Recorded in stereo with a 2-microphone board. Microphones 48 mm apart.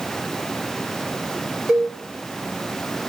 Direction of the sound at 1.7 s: 20° right (ahead or behind).